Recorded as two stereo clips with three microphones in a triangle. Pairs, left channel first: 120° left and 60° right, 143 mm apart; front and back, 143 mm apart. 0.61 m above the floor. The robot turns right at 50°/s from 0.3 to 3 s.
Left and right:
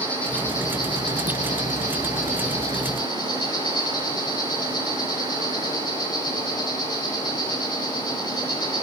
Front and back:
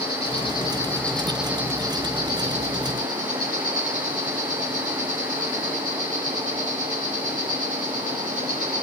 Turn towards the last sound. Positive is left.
turn(degrees=175)